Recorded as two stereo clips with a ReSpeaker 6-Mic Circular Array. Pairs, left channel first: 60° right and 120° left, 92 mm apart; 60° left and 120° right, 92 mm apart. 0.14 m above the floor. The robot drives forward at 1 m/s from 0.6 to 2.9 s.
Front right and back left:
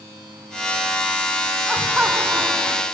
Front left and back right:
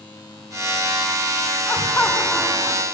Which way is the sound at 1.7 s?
30° left.